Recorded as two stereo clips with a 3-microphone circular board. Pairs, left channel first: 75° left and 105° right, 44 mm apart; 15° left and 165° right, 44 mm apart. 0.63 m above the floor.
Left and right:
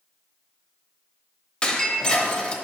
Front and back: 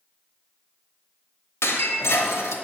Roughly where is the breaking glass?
Ahead.